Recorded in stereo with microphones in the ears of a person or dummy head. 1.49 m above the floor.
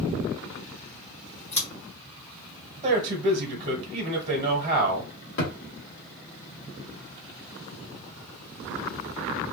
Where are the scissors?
30° left (ahead or behind), 1.5 m.